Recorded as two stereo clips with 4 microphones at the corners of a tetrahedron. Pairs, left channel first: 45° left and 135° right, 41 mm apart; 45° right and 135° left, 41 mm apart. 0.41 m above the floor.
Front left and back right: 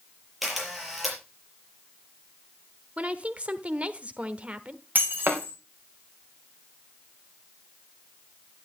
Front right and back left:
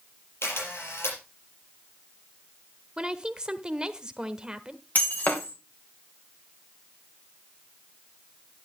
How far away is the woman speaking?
About 1.1 m.